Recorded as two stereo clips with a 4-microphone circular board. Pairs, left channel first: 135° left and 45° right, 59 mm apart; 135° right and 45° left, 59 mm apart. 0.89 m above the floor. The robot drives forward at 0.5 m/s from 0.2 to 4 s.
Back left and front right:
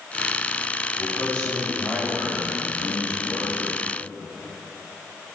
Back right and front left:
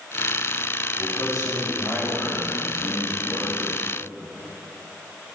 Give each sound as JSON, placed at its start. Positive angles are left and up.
{"t": 1.0, "sound": "a man speaking", "azimuth_deg": -155, "distance_m": 5.0}